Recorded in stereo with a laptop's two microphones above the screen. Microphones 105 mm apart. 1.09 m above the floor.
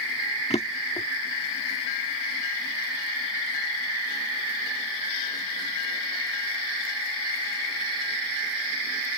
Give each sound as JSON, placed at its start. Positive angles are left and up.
{"t": 0.5, "sound": "a drawer", "side_deg": 85}